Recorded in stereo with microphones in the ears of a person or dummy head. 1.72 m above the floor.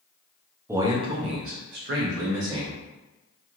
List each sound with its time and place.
0.7 s a man speaking: 10° right (ahead or behind), 0.6 m; by 2.8 s 70° right (ahead or behind), 1.1 m